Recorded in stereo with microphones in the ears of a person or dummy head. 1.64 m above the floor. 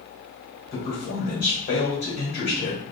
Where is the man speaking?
55° left (ahead or behind), 1.8 m.